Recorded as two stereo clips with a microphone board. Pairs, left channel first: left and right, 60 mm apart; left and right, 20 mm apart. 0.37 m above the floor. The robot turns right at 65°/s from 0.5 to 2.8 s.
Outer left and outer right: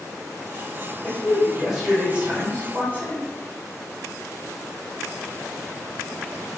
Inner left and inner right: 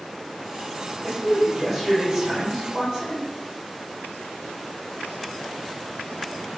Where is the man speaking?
150° left, 1.3 m; by 3.3 s 95° right, 1.3 m.